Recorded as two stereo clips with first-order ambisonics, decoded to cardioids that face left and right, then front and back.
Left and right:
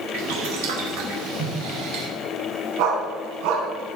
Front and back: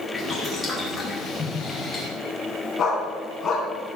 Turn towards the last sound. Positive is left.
turn(degrees=-70)